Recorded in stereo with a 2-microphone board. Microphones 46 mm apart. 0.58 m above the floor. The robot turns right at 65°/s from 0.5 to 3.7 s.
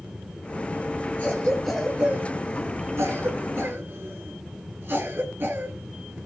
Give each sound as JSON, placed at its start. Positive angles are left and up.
{"t": 1.2, "sound": "a cough", "side_deg": 35, "distance_m": 8.0}